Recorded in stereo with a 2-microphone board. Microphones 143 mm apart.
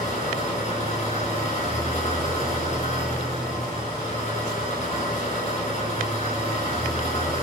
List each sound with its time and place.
0.0 s an engine running: 50° left (ahead or behind), 5.5 m